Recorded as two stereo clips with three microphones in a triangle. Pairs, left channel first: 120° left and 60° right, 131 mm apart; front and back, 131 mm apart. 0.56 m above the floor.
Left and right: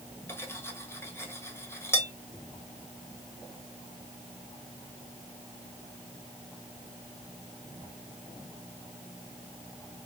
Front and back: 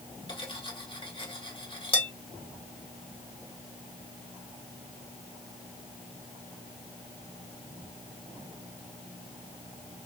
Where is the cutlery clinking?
50° left, 1.3 m.